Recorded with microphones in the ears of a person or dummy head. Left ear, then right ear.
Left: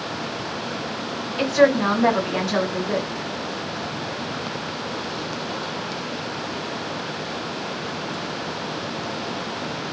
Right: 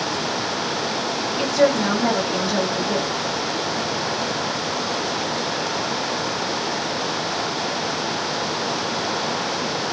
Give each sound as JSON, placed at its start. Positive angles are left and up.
{"t": 1.4, "sound": "a woman speaking", "side_deg": 55, "distance_m": 1.3}